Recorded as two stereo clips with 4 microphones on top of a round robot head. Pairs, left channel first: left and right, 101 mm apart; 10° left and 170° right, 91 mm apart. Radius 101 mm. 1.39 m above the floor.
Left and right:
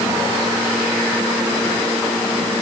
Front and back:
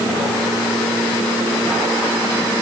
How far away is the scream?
No scream in this recording.